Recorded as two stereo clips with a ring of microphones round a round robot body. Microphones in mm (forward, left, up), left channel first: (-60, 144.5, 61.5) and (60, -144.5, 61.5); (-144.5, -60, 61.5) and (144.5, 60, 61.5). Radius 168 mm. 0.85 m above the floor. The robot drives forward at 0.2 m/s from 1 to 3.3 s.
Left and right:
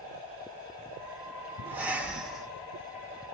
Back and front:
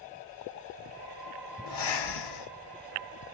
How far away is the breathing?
About 0.7 m.